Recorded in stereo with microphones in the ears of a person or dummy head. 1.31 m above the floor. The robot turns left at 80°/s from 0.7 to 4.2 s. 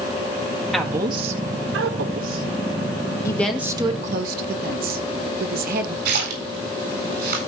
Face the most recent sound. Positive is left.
turn(degrees=-70)  # may be behind; listen again after turning